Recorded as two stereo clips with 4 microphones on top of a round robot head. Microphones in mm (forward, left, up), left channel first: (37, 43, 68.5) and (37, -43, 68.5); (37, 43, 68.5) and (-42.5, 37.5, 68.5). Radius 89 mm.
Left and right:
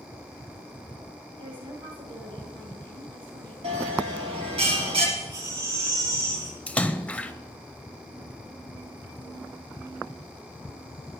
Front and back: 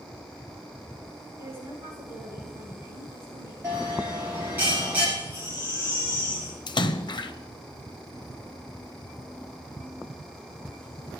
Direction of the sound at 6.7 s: 15° left.